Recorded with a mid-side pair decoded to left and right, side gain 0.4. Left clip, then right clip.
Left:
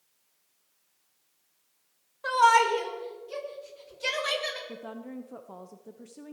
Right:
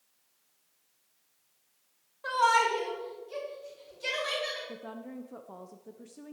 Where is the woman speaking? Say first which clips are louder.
Left 2 dB; 15° left, 1.0 m.